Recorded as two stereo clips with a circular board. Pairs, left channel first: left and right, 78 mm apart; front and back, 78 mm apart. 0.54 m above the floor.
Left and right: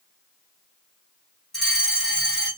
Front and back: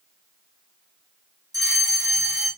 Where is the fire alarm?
175° left, 3 m.